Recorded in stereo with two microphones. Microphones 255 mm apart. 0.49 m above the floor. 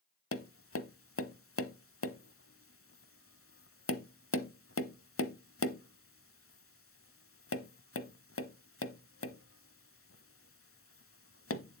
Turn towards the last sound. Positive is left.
turn(degrees=60)  # may be behind; listen again after turning